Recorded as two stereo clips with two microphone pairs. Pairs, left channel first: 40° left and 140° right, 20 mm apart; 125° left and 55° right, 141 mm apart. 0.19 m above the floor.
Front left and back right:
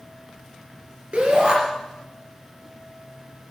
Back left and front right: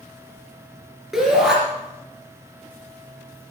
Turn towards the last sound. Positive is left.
turn(degrees=-140)